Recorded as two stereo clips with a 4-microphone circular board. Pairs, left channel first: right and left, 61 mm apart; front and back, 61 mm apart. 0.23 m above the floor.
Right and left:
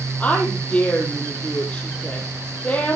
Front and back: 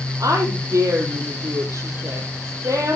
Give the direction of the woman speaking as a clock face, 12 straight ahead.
5 o'clock.